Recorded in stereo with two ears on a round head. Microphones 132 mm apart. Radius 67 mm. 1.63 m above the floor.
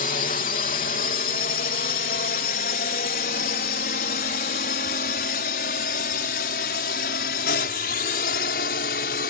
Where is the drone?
50° left (ahead or behind); by 9.3 s 60° left (ahead or behind).